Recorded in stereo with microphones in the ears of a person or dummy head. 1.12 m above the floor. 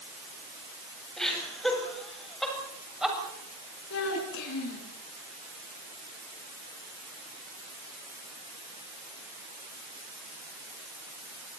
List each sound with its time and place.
1.2 s laughter: 5° left (ahead or behind), 8 m; by 3.2 s centre (ahead or behind), 7 m
3.9 s a child speaking: 75° left (ahead or behind), 8 m